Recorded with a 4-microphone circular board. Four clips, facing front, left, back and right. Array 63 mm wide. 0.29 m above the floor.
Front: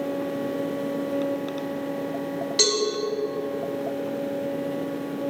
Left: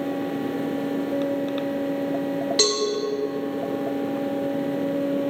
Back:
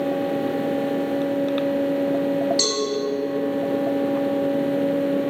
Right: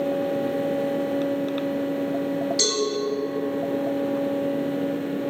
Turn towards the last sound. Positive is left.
turn(degrees=75)